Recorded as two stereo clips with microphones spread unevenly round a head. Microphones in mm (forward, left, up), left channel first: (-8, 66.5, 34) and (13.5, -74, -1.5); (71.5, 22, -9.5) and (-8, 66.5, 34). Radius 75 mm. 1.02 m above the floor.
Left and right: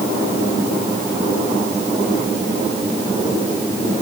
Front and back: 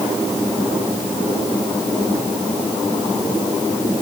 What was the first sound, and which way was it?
Only background noise.